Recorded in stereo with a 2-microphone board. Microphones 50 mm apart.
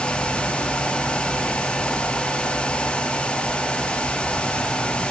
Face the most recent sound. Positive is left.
No sound to turn to.